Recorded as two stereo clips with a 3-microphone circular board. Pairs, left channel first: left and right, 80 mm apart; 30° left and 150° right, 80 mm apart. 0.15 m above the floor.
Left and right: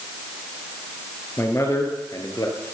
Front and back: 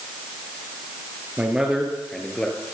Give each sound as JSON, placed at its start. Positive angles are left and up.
{"t": 1.4, "sound": "a man speaking", "azimuth_deg": 140, "distance_m": 3.0}